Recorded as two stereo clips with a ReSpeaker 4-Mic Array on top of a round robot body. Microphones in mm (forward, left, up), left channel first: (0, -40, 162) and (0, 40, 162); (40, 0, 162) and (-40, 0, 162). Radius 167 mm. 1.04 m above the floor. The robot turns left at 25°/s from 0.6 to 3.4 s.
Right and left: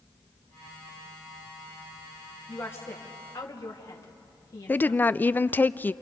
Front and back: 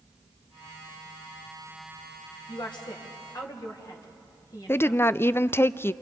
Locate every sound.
2.5 s a woman speaking: 25° right, 2.5 m; by 5.2 s 45° right, 2.5 m
4.7 s a woman speaking: 40° right, 0.5 m